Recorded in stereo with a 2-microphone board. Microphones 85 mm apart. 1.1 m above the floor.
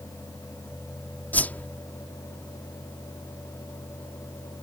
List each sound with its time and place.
1.3 s a whoosh: 20° left (ahead or behind)